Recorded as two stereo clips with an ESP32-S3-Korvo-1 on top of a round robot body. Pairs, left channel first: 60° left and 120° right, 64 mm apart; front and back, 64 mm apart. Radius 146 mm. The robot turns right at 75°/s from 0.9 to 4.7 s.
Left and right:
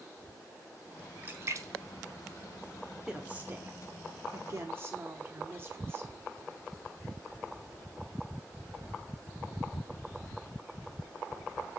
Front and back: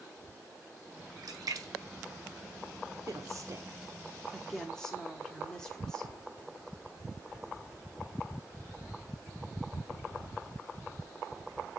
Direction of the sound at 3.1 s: 160° left.